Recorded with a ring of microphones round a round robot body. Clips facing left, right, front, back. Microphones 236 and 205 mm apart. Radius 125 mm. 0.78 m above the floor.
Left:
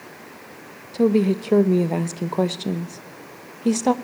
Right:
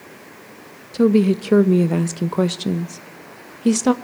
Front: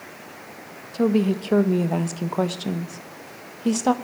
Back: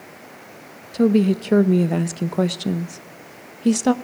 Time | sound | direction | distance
0.9 | a woman speaking | 140° right | 0.7 m